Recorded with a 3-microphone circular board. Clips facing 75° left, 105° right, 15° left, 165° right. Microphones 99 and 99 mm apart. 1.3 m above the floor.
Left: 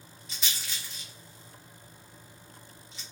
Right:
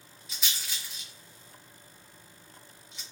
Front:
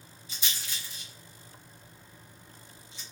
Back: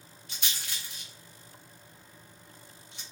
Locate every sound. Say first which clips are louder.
0.3 s a rattle: even, even; 165° left, 1.3 m